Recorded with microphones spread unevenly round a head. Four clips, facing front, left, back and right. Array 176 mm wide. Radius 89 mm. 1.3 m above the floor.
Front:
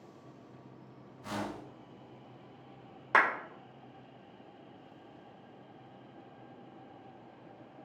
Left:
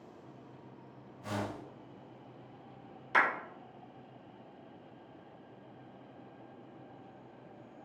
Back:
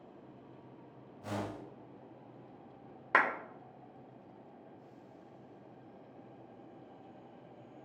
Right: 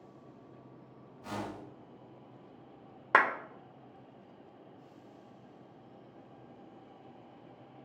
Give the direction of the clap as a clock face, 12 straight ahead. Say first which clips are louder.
Right 3 dB, front 2 dB; 3 o'clock.